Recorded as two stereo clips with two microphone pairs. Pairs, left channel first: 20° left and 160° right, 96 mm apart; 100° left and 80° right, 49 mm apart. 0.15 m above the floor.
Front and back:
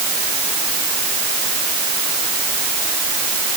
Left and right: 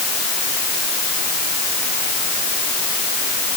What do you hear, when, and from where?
Only background noise.